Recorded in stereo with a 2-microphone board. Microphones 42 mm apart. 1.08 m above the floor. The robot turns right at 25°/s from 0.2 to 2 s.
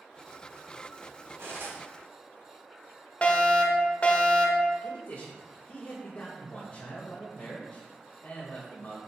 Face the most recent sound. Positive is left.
turn(degrees=40)  # may be behind; listen again after turning